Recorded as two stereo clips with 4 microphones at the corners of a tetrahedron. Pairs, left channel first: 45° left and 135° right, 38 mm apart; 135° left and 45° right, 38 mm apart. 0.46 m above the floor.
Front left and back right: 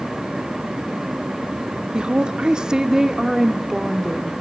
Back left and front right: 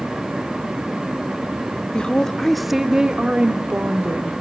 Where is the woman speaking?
Straight behind, 0.8 m; by 4.3 s 45° right, 1.1 m.